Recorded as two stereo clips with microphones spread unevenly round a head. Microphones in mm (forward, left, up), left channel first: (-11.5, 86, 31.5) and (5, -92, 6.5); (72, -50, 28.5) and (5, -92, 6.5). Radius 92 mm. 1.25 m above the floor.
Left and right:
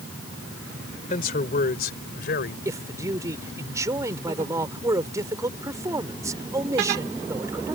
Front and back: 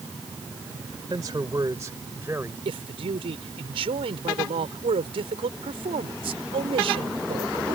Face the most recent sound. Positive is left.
turn(degrees=-160)